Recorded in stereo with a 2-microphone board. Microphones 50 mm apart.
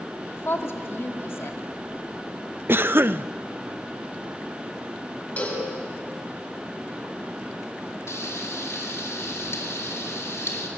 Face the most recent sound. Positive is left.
turn(degrees=70)  # may be behind; listen again after turning